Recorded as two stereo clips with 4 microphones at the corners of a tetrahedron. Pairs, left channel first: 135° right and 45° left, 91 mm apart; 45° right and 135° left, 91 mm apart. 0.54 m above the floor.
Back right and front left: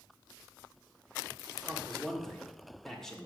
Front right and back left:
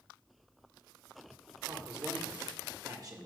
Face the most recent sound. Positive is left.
turn(degrees=145)